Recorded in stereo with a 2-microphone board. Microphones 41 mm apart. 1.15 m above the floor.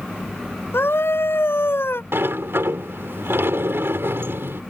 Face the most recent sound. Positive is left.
turn(degrees=-75)  # may be behind; listen again after turning